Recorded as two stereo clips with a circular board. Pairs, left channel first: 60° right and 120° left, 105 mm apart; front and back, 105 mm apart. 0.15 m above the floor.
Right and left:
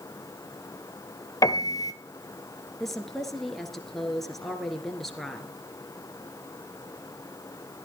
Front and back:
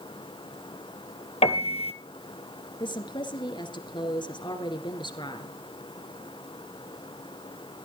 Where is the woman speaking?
25° left, 2.5 m.